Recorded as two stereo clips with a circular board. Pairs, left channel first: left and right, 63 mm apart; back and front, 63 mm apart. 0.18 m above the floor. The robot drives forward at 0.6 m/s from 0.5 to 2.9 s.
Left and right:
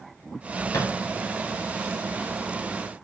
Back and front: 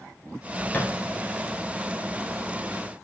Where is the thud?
110° left, 4.5 m; by 0.9 s 115° left, 4.5 m.